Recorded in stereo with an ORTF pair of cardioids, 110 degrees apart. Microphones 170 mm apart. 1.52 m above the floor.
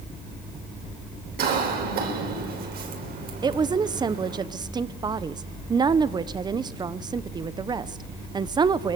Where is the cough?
65° right, 7.5 m.